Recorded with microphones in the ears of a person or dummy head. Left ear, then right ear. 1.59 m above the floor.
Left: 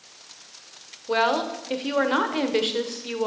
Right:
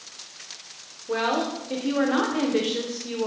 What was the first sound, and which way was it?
A woman speaking, 30° left (ahead or behind).